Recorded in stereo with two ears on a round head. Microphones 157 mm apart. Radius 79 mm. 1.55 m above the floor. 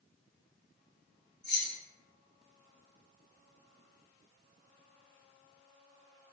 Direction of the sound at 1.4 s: 5° left (ahead or behind).